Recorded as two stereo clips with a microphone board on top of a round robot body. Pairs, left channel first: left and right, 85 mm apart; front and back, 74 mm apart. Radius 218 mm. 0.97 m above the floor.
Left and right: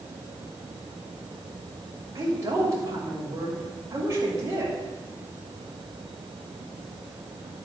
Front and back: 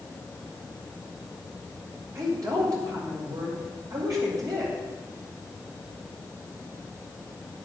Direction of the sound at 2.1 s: 145° right.